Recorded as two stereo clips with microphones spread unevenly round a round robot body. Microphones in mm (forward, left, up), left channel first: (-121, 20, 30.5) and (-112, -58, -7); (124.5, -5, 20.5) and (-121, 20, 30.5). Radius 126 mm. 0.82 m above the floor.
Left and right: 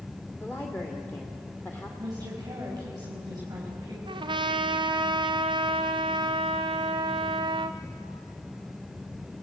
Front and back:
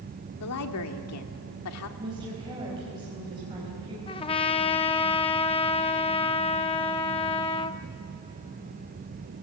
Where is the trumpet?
75° right, 0.9 m.